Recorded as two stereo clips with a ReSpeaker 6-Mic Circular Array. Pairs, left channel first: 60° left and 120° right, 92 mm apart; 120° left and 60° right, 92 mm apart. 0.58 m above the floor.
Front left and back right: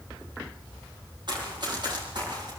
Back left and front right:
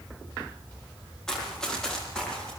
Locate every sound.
1.3 s running footsteps: 155° right, 7.5 m; by 2.5 s 160° right, 9 m